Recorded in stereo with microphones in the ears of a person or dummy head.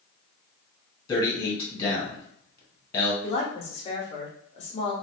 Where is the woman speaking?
45° left (ahead or behind), 0.8 m.